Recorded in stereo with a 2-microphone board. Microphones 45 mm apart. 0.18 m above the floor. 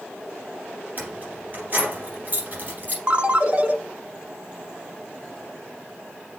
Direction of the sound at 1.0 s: 40° right (ahead or behind).